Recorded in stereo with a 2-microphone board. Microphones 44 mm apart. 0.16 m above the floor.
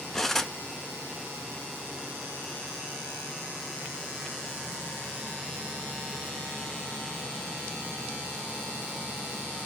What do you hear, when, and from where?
0.1 s cutlery clinking: 10° left (ahead or behind), 1.1 m